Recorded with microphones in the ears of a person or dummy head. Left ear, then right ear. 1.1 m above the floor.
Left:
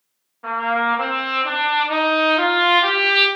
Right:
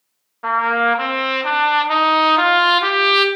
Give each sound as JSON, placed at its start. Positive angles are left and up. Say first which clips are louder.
{"t": 0.4, "sound": "a trumpet", "louder": "right 4 dB", "side_deg": -40, "distance_m": 0.7}